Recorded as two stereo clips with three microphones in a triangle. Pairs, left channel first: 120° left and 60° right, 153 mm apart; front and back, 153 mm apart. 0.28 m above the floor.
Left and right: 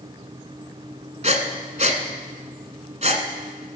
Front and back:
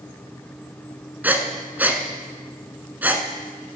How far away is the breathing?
About 1.1 m.